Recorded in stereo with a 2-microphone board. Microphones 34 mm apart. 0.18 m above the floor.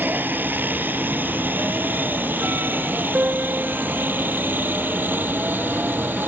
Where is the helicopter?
70° right (ahead or behind).